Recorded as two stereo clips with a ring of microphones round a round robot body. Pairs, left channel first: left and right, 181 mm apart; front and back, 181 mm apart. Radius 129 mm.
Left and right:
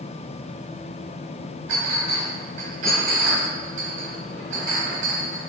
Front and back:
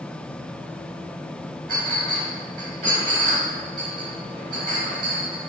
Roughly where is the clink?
Behind right.